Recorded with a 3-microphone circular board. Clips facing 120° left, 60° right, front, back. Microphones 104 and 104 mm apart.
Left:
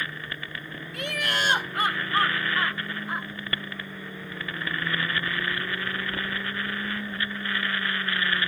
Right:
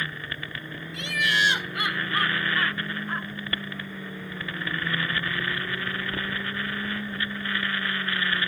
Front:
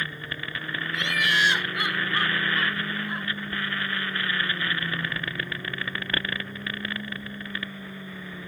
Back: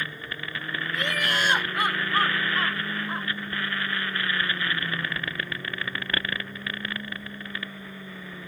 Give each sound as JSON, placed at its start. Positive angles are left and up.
{"t": 0.9, "sound": "laughter", "azimuth_deg": 145}